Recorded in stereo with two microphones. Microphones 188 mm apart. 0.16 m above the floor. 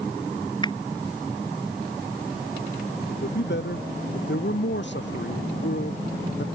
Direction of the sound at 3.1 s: 70° left (ahead or behind).